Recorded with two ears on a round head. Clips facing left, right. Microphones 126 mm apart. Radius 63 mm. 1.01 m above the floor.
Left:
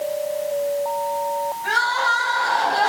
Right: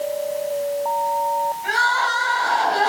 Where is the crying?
15° right (ahead or behind), 5.5 m.